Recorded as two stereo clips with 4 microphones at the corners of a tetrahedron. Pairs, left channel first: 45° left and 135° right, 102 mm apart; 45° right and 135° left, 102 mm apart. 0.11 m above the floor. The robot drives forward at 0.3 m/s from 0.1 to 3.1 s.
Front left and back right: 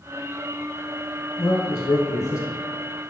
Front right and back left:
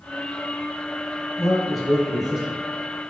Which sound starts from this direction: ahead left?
A man speaking, at 1.4 s.